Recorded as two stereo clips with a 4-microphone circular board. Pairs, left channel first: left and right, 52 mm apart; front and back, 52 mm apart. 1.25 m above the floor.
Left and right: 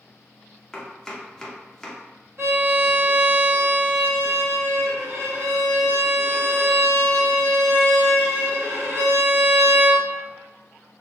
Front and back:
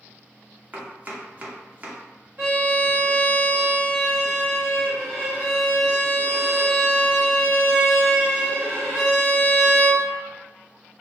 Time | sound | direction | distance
0.7 | chopping | 160° left | 0.8 m
2.4 | a violin | 125° right | 1.8 m